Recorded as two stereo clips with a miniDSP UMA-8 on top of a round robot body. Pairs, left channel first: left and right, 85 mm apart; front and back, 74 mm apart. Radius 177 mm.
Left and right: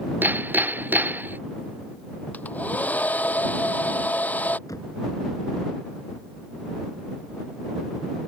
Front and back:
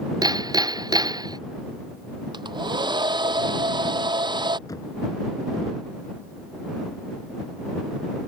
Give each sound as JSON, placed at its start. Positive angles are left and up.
{"t": 0.2, "sound": "hammering", "azimuth_deg": -155}
{"t": 2.3, "sound": "a hair dryer", "azimuth_deg": 165}
{"t": 4.7, "sound": "knocking", "azimuth_deg": 40}